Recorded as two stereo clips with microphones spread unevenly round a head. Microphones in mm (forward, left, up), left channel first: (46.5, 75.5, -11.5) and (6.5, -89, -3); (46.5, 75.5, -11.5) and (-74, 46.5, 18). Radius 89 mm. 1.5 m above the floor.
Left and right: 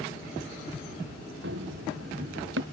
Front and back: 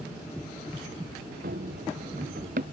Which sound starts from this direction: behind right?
Running footsteps, at 1.4 s.